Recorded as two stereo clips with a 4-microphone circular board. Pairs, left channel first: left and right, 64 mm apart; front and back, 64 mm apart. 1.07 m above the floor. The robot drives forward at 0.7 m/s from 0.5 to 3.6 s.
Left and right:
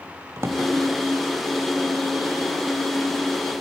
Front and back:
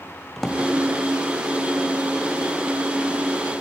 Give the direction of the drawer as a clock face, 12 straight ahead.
3 o'clock.